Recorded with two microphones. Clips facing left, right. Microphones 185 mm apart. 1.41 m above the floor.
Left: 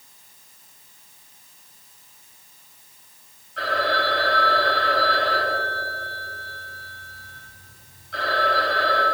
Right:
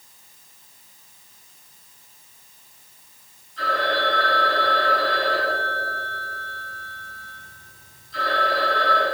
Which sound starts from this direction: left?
A phone ringing, at 3.6 s.